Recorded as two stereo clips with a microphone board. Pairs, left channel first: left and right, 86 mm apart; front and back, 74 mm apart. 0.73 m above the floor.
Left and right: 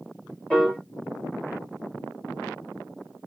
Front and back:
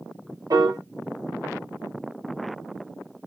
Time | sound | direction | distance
0.5 | a piano | 165° left | 2.5 m